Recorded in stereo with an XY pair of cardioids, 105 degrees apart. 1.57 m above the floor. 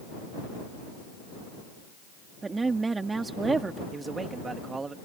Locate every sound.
2.4 s a woman speaking: 30° right
3.9 s a man speaking: 30° right